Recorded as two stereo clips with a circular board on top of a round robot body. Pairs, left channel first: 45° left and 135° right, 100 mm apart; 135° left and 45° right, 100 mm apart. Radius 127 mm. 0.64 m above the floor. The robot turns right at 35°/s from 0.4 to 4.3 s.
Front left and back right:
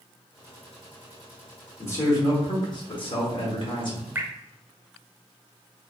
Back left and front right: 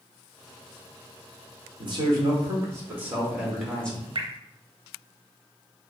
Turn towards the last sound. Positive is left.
turn(degrees=-65)